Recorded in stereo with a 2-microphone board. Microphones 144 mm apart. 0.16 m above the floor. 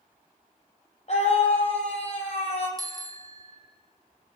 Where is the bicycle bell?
25° right (ahead or behind), 2.5 m.